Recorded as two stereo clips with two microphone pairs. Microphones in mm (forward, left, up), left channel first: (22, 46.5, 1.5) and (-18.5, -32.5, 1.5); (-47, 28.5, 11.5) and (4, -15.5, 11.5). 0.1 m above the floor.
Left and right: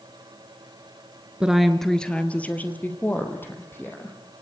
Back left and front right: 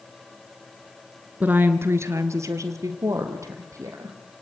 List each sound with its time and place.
1.4 s a woman speaking: 55° right, 1.2 m; by 4.2 s straight ahead, 4.5 m